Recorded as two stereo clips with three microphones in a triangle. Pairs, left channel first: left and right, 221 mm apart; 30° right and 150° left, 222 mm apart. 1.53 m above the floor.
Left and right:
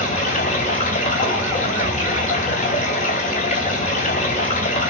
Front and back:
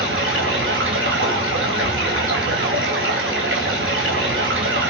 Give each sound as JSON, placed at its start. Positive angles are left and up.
{"t": 0.0, "sound": "running water", "azimuth_deg": 140, "distance_m": 2.5}